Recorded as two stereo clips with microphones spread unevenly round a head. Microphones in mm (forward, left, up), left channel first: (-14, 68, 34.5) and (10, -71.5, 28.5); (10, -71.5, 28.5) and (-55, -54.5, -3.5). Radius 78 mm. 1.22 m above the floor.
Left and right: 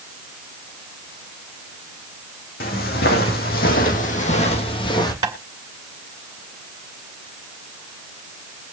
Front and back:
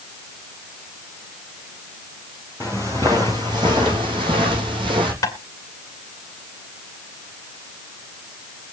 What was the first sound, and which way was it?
Footsteps, 80° left.